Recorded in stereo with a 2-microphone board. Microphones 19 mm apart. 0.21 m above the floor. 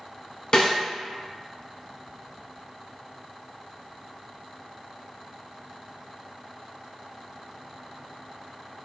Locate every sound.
0.5 s a snare drum: 45° left (ahead or behind), 1.0 m